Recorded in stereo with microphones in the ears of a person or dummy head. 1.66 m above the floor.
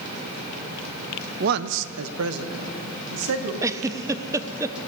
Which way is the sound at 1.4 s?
50° right (ahead or behind).